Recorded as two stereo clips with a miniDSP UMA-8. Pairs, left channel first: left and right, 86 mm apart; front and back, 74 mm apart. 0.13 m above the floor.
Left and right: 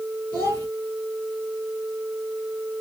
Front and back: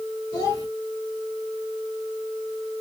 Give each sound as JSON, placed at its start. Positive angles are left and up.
{"t": 0.3, "sound": "a child speaking", "azimuth_deg": 30, "distance_m": 2.5}